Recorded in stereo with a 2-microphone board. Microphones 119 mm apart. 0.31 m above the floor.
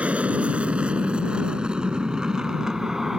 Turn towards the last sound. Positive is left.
turn(degrees=-5)  # may be behind; listen again after turning